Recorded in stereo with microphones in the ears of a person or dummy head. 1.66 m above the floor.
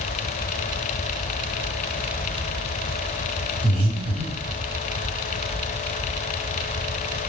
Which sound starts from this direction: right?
Breathing, at 3.6 s.